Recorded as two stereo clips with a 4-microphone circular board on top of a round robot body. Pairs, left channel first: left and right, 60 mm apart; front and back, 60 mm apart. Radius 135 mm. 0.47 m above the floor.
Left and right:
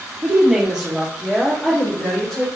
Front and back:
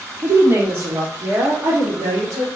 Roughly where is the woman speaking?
Behind right.